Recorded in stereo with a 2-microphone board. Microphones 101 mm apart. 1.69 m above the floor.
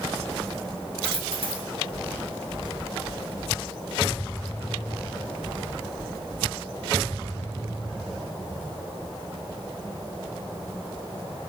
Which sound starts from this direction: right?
A dropped coin, at 1.0 s.